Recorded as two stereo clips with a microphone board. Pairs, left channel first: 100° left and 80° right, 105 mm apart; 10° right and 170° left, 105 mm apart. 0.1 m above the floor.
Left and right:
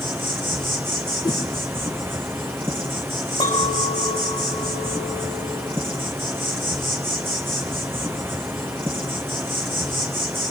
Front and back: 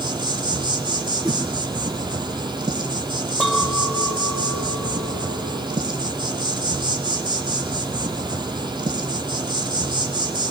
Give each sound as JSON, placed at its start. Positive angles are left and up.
{"t": 0.0, "sound": "an insect", "azimuth_deg": -145, "distance_m": 1.2}
{"t": 1.2, "sound": "a whoosh", "azimuth_deg": 135, "distance_m": 1.6}
{"t": 3.4, "sound": "a clink", "azimuth_deg": 90, "distance_m": 3.0}